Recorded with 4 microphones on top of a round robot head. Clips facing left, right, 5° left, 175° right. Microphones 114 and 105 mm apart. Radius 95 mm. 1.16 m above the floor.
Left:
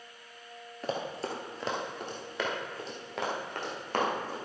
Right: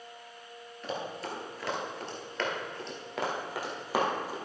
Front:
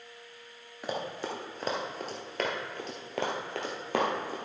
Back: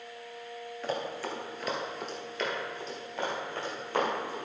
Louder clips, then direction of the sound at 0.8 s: Left 2 dB, even; 75° left.